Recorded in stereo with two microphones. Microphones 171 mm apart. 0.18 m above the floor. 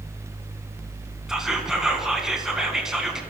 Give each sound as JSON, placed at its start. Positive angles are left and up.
{"t": 1.3, "sound": "whispering", "side_deg": -5, "distance_m": 1.9}